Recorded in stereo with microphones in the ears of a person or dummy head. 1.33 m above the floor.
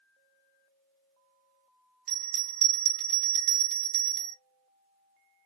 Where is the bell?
35° right (ahead or behind), 1.1 m.